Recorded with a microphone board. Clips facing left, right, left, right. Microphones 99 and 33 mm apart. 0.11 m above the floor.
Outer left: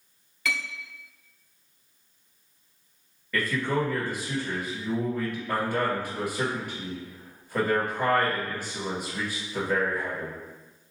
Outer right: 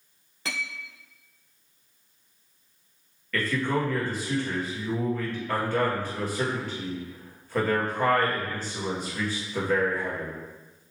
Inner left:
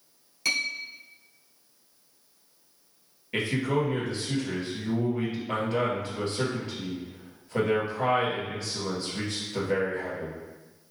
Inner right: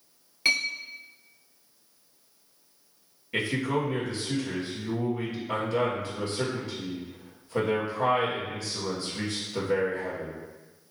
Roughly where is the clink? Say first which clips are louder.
Outer left 3 dB, inner right 3 dB; right.